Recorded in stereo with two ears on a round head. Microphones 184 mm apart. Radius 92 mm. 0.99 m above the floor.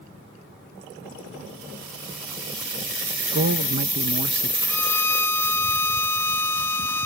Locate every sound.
3.3 s a man speaking: 55° right (ahead or behind)
4.7 s a violin: 10° left (ahead or behind)